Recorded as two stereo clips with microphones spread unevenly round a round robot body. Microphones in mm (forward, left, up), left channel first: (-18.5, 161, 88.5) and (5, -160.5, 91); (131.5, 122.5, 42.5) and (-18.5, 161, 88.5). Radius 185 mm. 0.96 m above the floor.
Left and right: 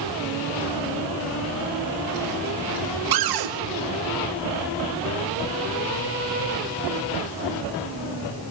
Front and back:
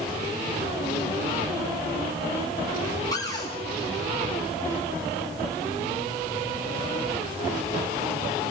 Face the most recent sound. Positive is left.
turn(degrees=-80)